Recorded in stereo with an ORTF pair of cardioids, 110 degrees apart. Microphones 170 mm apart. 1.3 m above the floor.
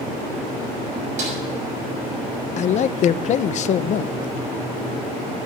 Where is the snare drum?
50° right, 6.5 m.